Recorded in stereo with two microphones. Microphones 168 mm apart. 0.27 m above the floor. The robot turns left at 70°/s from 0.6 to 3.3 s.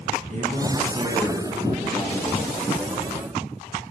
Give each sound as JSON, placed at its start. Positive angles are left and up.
{"t": 0.3, "sound": "a man speaking", "azimuth_deg": -110, "distance_m": 2.0}